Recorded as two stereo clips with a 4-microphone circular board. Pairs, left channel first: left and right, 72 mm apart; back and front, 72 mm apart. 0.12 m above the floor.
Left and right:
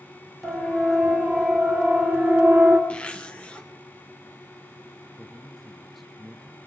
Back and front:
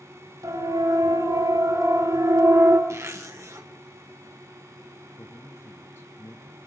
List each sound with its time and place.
0.4 s a siren: 5° left, 4.5 m; by 2.8 s 30° right, 3 m
2.9 s a zipper: 25° left, 1.5 m
5.2 s a man speaking: 175° left, 1.3 m